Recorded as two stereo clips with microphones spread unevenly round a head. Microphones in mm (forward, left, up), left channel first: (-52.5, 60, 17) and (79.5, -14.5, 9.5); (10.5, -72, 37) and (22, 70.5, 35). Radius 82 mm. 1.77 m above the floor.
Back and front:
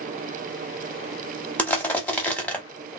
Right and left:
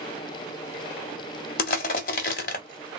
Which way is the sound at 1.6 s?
130° right.